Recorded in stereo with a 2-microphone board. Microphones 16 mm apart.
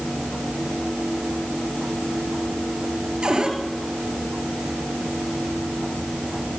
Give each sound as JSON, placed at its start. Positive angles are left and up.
{"t": 3.2, "sound": "a cupboard door", "side_deg": -65, "distance_m": 3.5}